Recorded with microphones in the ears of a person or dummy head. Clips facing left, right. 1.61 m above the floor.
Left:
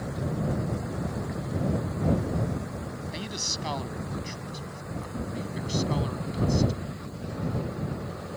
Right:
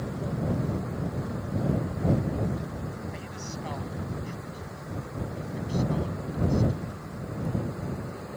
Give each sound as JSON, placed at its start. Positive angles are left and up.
{"t": 3.1, "sound": "a man speaking", "side_deg": 55}